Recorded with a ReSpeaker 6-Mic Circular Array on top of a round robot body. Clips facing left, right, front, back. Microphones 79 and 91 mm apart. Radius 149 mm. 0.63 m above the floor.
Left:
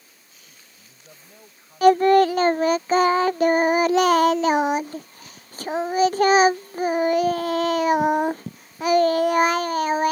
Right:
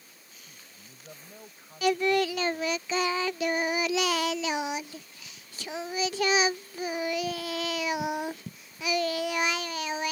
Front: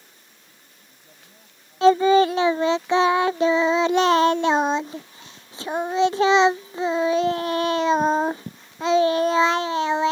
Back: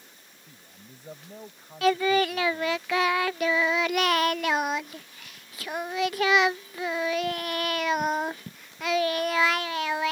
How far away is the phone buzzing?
No phone buzzing in this recording.